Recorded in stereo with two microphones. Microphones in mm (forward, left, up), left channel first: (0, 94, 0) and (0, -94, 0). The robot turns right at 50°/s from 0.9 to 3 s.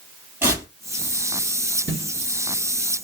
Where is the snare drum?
70° right (ahead or behind), 2 m; by 2.1 s 80° right, 2 m.